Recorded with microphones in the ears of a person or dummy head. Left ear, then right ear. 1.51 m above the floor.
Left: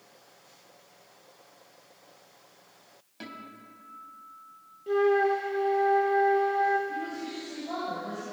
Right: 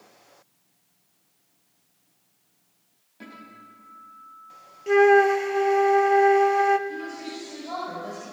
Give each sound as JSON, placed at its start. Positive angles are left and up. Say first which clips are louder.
{"t": 3.2, "sound": "a guitar", "louder": "left 1 dB", "side_deg": 40, "distance_m": 4.0}
{"t": 4.9, "sound": "a flute", "louder": "right 7 dB", "side_deg": -55, "distance_m": 0.6}
{"t": 6.9, "sound": "a woman speaking", "louder": "even", "side_deg": -40, "distance_m": 6.5}